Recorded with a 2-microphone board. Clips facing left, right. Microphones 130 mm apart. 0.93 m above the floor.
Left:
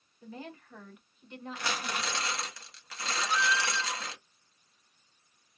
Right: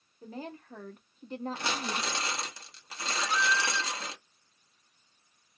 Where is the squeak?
10° left (ahead or behind), 0.6 m.